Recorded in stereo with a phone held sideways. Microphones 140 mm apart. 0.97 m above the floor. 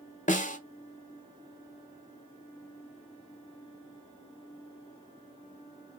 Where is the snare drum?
65° left (ahead or behind), 1.0 m.